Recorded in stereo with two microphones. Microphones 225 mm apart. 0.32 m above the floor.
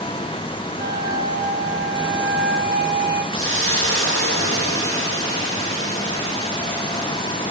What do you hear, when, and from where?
0.8 s a flute: 50° right (ahead or behind), 1.0 m
3.3 s a hiss: 65° left (ahead or behind), 4.5 m